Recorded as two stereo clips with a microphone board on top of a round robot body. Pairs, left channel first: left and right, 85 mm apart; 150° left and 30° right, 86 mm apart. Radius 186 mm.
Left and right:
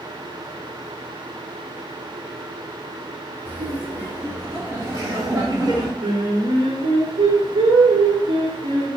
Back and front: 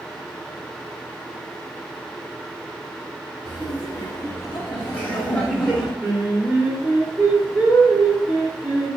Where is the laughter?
160° right, 4 m; by 5.9 s 125° right, 2 m.